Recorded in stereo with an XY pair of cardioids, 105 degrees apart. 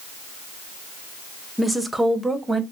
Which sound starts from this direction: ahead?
A woman speaking, at 1.6 s.